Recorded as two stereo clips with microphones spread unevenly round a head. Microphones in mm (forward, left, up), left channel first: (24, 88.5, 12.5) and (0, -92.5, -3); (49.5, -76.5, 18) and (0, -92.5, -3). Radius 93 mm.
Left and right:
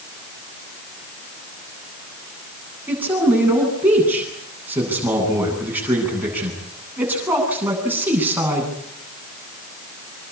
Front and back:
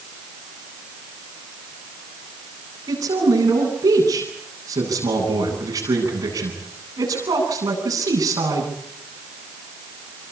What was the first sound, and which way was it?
A man speaking, straight behind.